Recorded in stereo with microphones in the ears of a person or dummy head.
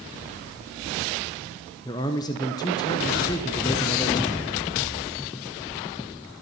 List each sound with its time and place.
1.9 s a man speaking: 15° left (ahead or behind), 0.5 m